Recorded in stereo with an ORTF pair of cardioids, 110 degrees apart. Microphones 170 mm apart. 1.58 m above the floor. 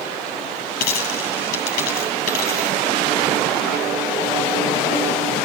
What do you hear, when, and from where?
0.8 s a dropped coin: 70° left, 8 m